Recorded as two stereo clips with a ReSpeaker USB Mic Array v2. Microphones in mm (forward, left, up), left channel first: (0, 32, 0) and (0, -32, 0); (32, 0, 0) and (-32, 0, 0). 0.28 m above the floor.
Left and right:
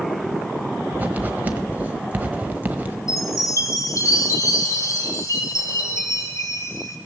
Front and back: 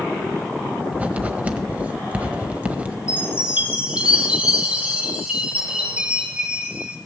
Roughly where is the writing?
Behind right.